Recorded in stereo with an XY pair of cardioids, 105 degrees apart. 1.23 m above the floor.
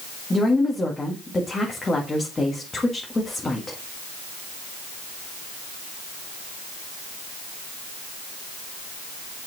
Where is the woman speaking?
25° left, 1.7 m.